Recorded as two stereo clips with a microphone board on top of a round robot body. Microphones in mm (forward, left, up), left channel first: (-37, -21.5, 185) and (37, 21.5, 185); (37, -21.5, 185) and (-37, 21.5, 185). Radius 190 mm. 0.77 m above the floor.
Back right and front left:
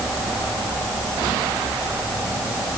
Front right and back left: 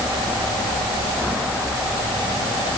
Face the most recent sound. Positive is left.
No sound to turn to.